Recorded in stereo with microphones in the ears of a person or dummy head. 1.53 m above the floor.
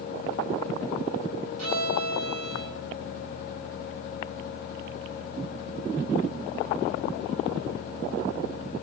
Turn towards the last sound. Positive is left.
turn(degrees=-80)